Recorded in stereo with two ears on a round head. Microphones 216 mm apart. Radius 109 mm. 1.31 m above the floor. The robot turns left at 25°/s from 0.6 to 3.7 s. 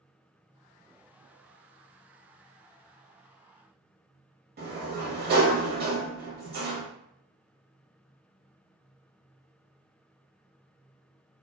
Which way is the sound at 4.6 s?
40° right (ahead or behind).